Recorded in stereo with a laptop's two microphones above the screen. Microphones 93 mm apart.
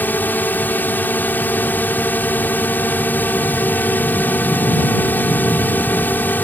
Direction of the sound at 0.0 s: 20° left (ahead or behind).